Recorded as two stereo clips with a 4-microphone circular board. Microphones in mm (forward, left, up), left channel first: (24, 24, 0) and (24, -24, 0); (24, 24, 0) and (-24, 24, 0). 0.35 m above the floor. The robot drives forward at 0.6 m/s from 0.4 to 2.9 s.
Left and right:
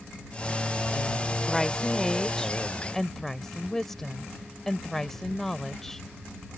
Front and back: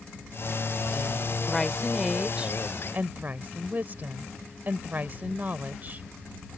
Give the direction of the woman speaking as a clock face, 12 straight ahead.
11 o'clock.